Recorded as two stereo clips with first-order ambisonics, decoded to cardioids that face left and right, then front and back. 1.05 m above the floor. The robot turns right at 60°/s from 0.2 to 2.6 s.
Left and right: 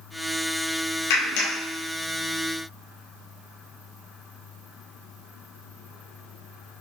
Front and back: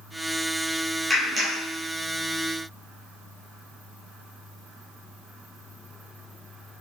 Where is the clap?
95° left, 2.5 m; by 1.6 s 125° left, 2.5 m.